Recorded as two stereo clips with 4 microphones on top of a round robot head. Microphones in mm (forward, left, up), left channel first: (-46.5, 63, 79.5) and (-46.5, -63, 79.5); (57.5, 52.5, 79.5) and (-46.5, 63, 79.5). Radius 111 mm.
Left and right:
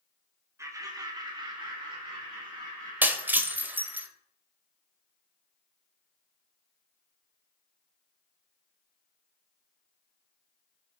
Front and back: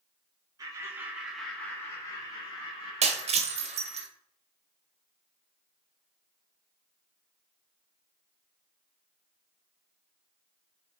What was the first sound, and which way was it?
Laughter, 150° right.